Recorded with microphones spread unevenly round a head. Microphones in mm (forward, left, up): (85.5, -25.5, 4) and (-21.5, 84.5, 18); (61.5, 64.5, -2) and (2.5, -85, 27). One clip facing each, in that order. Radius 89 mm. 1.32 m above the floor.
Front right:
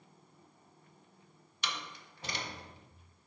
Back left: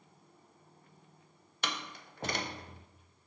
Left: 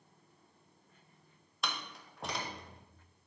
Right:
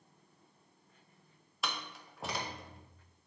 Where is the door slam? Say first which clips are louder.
Back left 3 dB, even; 170° left, 0.6 m.